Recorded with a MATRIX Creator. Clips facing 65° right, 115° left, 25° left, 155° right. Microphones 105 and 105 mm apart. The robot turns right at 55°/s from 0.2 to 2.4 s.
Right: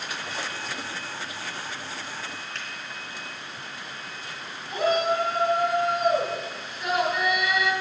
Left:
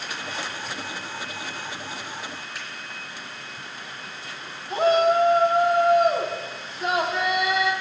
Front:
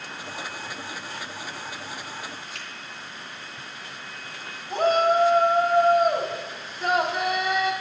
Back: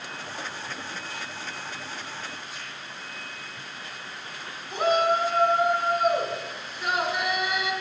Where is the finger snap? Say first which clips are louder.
Even, front 1 dB; 30° left, 3 m.